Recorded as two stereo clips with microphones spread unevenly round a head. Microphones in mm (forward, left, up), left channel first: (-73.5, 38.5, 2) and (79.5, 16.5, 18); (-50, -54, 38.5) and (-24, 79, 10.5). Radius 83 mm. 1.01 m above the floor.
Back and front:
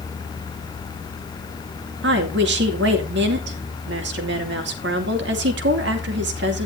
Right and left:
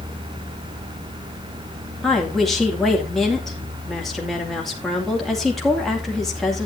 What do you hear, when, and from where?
2.0 s a woman speaking: 10° right, 2.5 m